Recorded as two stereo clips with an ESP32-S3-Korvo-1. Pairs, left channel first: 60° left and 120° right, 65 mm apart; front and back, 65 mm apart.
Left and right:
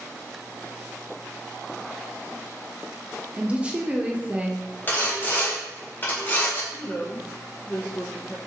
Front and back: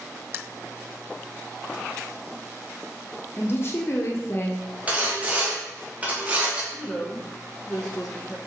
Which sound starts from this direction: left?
A woman speaking, at 6.7 s.